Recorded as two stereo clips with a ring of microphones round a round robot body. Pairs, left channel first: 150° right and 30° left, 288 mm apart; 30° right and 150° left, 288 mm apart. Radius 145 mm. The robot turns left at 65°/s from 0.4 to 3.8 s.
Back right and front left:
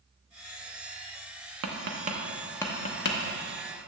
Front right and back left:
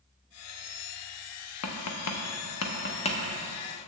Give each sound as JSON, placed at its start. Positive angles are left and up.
{"t": 1.6, "sound": "tapping", "azimuth_deg": -5, "distance_m": 0.9}